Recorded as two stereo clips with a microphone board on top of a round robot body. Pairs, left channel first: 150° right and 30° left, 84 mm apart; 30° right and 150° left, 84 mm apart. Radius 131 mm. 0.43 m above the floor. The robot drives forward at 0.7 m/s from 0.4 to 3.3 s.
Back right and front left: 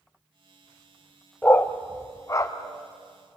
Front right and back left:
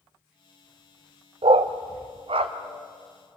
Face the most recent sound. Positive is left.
turn(degrees=160)